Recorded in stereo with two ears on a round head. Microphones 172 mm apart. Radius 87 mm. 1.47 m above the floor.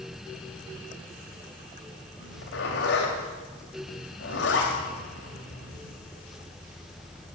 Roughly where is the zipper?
Left.